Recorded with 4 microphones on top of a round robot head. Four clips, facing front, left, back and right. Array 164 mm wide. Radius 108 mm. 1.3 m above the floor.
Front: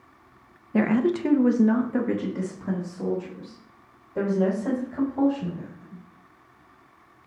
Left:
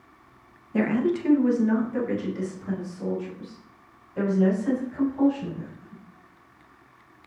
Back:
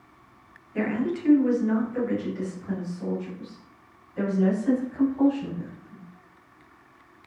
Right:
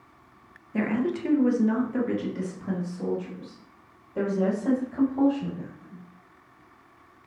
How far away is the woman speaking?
About 1.1 m.